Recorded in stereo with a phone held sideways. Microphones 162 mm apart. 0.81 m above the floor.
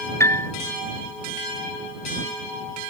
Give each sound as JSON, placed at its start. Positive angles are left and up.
{"t": 0.2, "sound": "a piano", "side_deg": 15}